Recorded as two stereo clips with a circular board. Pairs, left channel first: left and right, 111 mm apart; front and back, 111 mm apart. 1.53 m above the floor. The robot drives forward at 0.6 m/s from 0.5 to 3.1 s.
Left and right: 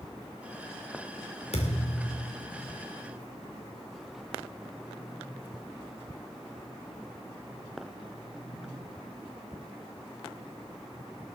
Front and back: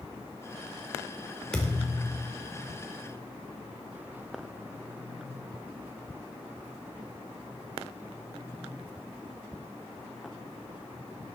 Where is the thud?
85° left, 2.5 m; by 2.3 s 95° left, 2.5 m.